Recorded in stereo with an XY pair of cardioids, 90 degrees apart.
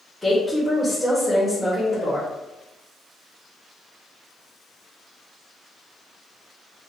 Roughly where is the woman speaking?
Ahead.